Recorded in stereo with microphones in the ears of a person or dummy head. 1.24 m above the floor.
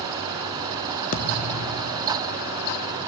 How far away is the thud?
About 1.0 m.